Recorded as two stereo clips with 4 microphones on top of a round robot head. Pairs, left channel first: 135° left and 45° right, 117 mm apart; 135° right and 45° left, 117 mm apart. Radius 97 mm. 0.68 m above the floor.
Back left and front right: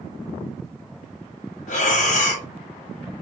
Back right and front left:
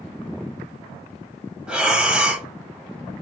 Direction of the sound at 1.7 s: 125° left.